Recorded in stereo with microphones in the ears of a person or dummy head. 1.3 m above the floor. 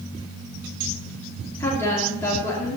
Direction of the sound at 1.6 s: 10° left (ahead or behind).